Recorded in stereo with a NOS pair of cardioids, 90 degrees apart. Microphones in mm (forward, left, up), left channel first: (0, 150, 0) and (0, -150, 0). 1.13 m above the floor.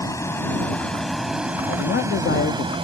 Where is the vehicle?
10° left; by 2.9 s 20° right.